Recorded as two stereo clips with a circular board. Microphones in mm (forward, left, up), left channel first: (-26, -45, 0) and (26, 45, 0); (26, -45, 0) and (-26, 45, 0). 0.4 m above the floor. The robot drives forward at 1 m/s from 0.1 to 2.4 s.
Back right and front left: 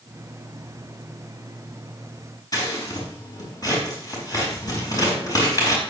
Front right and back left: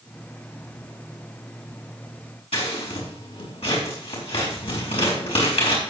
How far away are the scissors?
About 5 m.